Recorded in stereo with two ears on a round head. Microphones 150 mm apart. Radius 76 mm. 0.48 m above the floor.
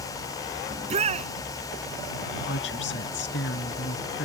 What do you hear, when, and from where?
0.7 s a shout: 40° right (ahead or behind)
2.5 s a woman speaking: 75° left (ahead or behind)